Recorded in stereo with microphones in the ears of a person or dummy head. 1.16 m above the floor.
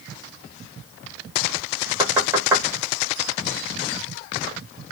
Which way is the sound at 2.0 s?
20° right (ahead or behind).